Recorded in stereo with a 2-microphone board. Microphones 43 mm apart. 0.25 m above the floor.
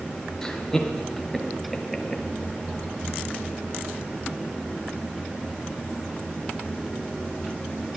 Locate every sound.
0.4 s laughter: 10° left (ahead or behind), 5 m; by 2.2 s 5° right (ahead or behind), 5 m